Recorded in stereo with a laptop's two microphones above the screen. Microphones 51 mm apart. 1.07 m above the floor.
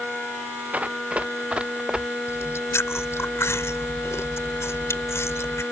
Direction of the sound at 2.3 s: 60° left (ahead or behind).